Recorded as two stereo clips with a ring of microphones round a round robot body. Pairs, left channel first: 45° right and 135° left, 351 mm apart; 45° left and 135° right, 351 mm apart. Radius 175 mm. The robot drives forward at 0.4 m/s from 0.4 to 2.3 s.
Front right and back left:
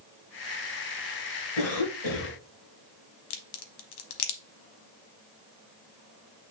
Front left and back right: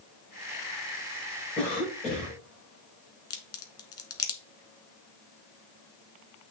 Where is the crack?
30° right, 1.2 m.